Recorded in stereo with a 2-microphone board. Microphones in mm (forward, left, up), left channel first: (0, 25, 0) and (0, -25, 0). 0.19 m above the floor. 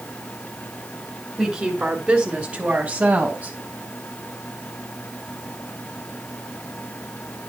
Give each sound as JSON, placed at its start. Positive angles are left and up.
{"t": 1.4, "sound": "a woman speaking", "side_deg": -10, "distance_m": 1.9}